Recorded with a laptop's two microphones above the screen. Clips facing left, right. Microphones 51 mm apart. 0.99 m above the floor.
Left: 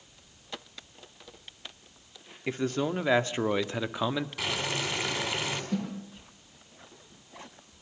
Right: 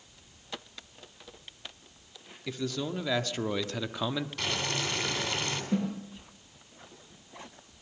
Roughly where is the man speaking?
Left.